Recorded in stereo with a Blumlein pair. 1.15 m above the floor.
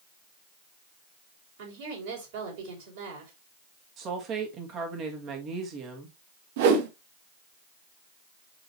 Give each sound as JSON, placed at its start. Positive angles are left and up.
{"t": 1.6, "sound": "a woman speaking", "azimuth_deg": -55, "distance_m": 4.5}
{"t": 4.0, "sound": "a woman speaking", "azimuth_deg": -35, "distance_m": 2.0}
{"t": 6.6, "sound": "a whoosh", "azimuth_deg": -50, "distance_m": 1.1}